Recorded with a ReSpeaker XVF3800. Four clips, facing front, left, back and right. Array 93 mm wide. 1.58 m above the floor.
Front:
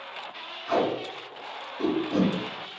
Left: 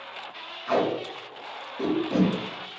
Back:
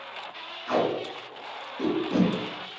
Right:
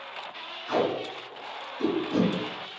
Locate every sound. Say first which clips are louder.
0.7 s tape being pulled: left 2 dB, even; 100° left, 1.9 m